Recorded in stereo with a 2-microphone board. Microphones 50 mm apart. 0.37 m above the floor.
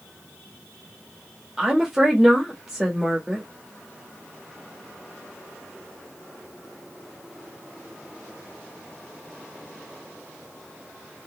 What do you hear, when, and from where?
1.6 s a woman speaking: 10° right (ahead or behind), 1.2 m